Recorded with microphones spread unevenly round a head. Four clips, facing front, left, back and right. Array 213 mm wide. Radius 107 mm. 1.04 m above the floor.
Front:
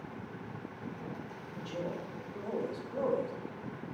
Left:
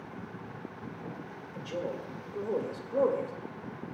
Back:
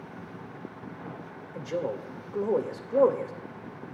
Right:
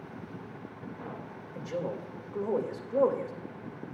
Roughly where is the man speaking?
Behind.